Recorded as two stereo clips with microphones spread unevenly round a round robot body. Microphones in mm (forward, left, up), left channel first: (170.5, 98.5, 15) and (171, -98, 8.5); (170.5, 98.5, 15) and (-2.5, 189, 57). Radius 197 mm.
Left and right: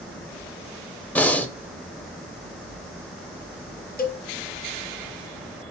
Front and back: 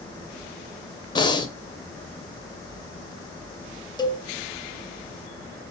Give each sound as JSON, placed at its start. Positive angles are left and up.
{"t": 1.1, "sound": "breathing", "azimuth_deg": 10, "distance_m": 0.8}
{"t": 4.0, "sound": "a cowbell", "azimuth_deg": 40, "distance_m": 0.9}